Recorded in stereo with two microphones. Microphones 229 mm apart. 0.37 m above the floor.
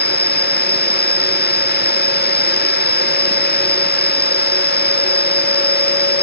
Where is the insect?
25° left (ahead or behind).